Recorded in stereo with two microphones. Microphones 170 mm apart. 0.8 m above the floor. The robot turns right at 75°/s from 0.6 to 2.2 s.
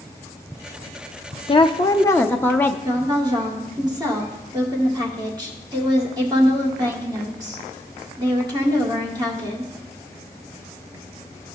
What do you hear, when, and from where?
1.5 s a woman speaking: 105° left, 0.5 m; by 2.8 s 160° left, 0.5 m
2.9 s a woman speaking: 25° right (ahead or behind), 2 m